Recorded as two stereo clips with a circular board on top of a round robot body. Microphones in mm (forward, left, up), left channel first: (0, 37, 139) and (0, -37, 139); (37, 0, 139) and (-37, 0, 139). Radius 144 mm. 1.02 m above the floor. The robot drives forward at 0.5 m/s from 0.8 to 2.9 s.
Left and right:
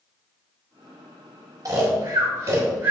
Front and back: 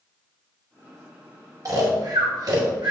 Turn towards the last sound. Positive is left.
turn(degrees=-150)